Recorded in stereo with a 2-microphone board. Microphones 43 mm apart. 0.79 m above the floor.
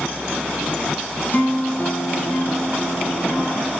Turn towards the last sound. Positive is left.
turn(degrees=40)  # may be behind; listen again after turning